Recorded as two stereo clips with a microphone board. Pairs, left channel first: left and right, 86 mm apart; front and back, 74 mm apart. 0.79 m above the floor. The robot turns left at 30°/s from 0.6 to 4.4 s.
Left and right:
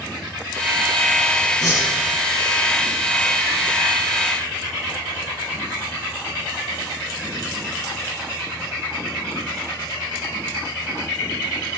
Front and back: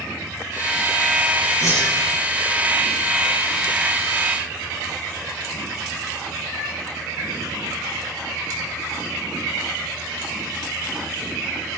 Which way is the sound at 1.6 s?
45° left.